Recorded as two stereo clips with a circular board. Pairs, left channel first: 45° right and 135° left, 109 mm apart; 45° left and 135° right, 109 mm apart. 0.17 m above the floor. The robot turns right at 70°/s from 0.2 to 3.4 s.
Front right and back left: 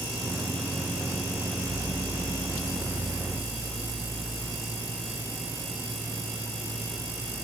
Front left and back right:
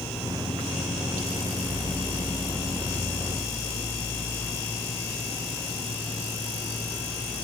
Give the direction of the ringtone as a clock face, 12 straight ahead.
No ringtone in this recording.